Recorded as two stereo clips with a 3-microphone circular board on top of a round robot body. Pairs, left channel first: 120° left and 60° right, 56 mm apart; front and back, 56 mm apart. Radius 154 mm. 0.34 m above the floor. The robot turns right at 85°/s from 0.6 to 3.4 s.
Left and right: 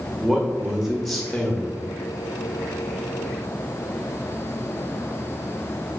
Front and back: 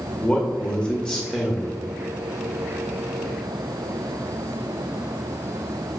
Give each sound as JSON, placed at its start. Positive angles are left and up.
{"t": 0.2, "sound": "a man speaking", "azimuth_deg": 0, "distance_m": 1.3}